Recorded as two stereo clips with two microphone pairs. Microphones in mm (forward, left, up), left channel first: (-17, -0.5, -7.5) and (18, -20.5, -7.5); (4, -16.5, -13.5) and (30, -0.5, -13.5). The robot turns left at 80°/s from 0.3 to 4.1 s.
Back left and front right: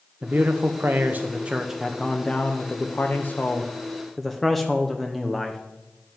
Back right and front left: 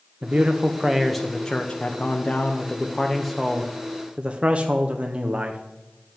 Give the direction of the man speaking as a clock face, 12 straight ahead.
12 o'clock.